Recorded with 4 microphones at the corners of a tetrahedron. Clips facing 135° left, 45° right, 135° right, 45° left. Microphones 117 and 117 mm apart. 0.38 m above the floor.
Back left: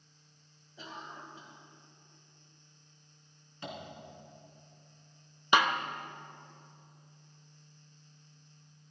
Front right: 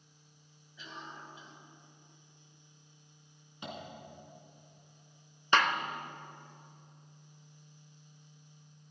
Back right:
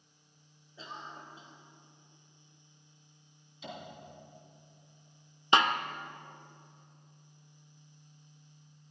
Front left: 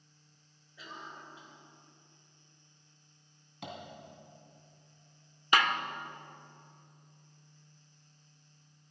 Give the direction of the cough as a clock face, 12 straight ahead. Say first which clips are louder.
Back left 2 dB, back right 2 dB; 6 o'clock.